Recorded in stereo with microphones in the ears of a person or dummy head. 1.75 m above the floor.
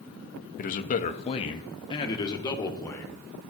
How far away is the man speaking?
About 0.9 m.